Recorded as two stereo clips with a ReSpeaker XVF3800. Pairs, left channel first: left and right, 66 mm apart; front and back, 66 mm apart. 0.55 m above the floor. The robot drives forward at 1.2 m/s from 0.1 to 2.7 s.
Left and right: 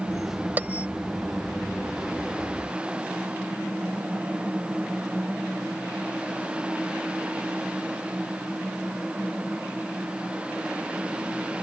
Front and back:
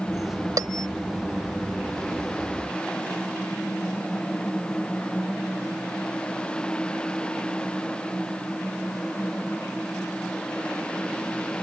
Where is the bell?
150° right; by 0.9 s 155° right.